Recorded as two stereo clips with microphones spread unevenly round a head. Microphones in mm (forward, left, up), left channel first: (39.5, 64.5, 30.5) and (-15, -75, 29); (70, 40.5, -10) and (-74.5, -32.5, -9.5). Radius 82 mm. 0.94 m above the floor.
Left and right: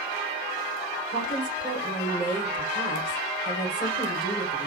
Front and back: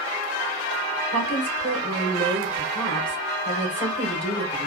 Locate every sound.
1.1 s a woman speaking: 105° left, 3 m